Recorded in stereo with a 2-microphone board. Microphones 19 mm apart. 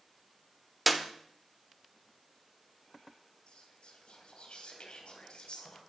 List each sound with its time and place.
0.9 s a clap: centre (ahead or behind), 1.2 m
3.5 s whispering: 70° left (ahead or behind), 3.5 m